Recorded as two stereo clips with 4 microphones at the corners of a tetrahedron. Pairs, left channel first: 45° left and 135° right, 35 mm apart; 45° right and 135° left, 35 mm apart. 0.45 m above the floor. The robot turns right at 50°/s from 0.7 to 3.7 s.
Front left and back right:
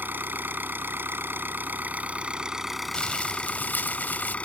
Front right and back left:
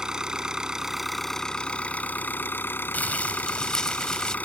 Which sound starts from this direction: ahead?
Crumpling, at 2.9 s.